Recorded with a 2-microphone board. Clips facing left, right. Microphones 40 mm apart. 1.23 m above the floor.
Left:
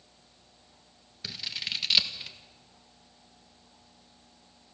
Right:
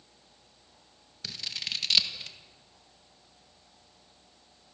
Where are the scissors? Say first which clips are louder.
Left 1 dB; 5° left (ahead or behind), 1.4 m.